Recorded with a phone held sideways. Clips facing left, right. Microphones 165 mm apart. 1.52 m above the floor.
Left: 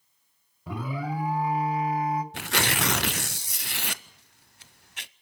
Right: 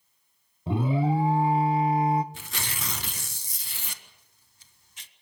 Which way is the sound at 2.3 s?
70° left (ahead or behind).